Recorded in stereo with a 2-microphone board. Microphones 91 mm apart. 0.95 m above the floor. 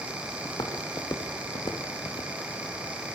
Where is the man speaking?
I don't hear a man speaking.